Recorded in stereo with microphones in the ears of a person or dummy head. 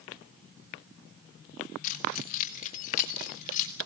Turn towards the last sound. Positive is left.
turn(degrees=40)  # may be behind; listen again after turning